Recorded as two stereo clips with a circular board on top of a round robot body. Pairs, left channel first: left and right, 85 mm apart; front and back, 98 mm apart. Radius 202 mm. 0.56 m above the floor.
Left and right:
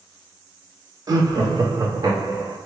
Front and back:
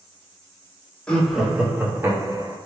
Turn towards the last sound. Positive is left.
turn(degrees=-130)